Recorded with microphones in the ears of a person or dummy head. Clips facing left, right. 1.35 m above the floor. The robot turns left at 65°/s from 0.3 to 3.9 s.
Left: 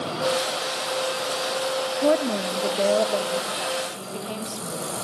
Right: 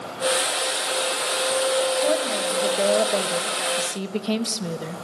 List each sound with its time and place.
2.0 s a woman speaking: 55° left, 1.2 m; by 4.9 s 70° right, 1.2 m